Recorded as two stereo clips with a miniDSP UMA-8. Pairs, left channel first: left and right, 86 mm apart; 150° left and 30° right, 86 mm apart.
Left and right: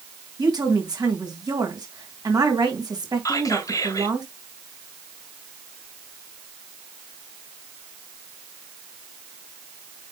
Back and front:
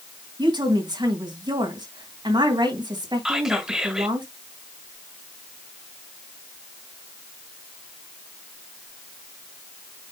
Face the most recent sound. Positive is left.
turn(degrees=55)